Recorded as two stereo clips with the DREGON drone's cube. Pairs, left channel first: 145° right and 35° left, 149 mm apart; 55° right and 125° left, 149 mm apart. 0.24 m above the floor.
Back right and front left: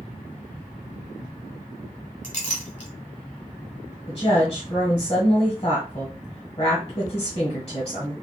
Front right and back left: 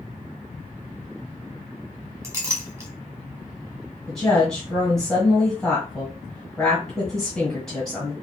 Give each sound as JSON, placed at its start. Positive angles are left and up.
{"t": 2.2, "sound": "a clink", "azimuth_deg": -165, "distance_m": 1.2}
{"t": 4.1, "sound": "a woman speaking", "azimuth_deg": -140, "distance_m": 1.5}